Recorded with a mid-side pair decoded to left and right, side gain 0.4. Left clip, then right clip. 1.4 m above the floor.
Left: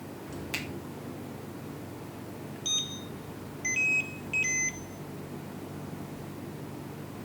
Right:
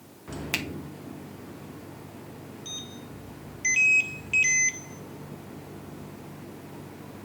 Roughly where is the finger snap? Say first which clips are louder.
Right 5 dB; ahead right.